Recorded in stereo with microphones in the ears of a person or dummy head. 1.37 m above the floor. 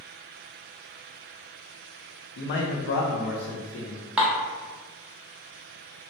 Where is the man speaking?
45° left (ahead or behind), 0.5 m; by 4.0 s 75° left (ahead or behind), 1.6 m.